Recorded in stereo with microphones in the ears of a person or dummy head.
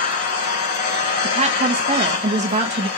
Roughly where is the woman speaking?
Right.